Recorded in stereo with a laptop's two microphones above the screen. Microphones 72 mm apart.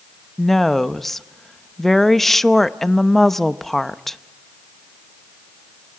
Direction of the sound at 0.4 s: 5° left (ahead or behind).